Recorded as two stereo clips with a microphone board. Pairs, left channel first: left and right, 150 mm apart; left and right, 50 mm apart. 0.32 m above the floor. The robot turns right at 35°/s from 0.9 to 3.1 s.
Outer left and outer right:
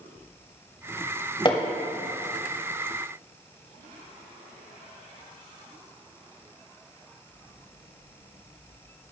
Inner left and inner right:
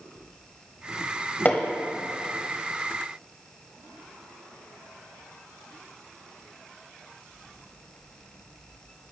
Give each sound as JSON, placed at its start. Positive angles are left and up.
{"t": 1.4, "sound": "hammering", "side_deg": 35, "distance_m": 1.0}